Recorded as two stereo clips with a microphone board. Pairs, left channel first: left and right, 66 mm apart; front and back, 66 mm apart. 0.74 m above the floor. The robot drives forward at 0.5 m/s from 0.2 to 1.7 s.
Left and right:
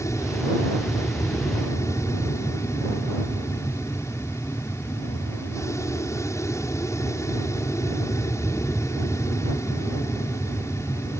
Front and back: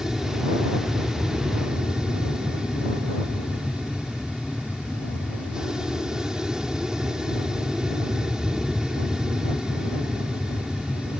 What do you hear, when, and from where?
0.0 s an aircraft: 100° left